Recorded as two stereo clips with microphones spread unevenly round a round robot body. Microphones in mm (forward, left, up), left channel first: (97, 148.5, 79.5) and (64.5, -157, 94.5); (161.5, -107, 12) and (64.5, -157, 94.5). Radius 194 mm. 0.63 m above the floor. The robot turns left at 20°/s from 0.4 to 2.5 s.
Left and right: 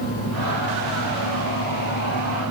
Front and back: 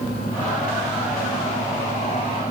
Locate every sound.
Only background noise.